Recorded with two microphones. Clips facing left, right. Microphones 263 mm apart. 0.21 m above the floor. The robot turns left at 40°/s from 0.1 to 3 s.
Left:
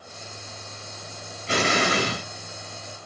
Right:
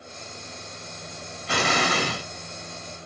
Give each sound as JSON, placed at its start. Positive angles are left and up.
{"t": 1.5, "sound": "an explosion", "azimuth_deg": 140, "distance_m": 1.2}